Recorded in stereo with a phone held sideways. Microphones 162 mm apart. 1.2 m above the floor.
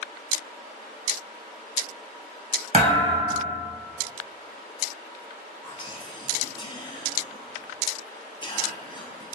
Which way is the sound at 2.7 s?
45° right (ahead or behind).